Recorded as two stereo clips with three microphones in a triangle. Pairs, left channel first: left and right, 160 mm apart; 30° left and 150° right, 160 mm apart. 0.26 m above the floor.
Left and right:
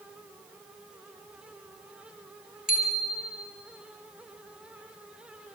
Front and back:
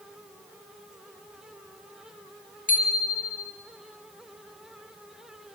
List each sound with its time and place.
2.7 s a bicycle bell: 60° left, 5 m